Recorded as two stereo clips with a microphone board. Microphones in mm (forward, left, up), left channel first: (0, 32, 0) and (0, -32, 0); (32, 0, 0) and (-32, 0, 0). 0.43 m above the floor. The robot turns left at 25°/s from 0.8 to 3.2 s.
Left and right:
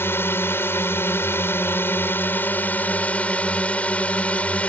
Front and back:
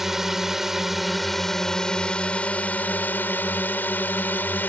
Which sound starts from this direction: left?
A drone, at 0.0 s.